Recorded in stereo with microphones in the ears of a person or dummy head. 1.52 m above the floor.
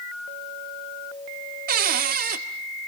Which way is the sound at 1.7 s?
50° right (ahead or behind).